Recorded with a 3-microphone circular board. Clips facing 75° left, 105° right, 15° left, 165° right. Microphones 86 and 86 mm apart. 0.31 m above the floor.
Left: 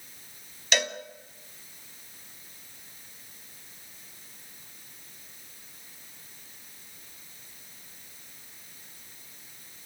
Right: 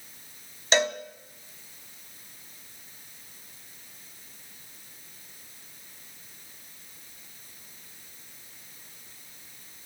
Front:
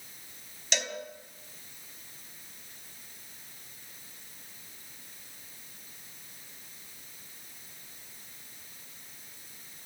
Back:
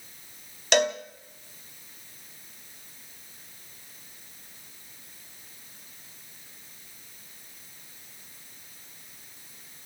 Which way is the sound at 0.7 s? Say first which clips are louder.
Right 5 dB, back 12 dB; 160° right.